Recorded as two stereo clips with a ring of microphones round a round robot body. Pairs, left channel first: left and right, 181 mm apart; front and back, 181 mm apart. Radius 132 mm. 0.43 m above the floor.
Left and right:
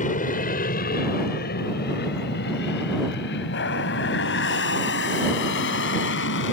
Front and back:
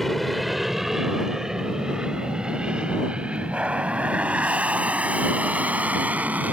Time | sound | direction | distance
0.0 | an aircraft | 90° left | ?